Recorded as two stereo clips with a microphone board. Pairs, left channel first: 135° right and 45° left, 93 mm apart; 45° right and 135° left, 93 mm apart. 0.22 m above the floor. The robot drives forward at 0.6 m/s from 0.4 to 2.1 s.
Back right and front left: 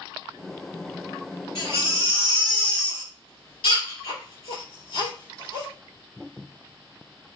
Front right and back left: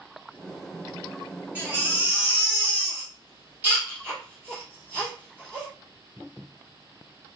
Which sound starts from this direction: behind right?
A baby crying, at 1.6 s.